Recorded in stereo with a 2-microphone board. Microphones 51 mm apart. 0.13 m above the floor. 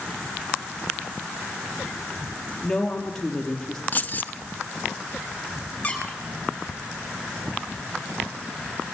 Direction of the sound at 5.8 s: 25° left (ahead or behind).